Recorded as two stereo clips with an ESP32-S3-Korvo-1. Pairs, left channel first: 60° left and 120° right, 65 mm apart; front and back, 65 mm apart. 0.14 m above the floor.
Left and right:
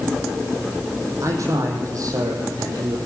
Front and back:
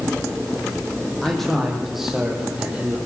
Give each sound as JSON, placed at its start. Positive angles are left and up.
{"t": 1.2, "sound": "a man speaking", "azimuth_deg": -85, "distance_m": 6.0}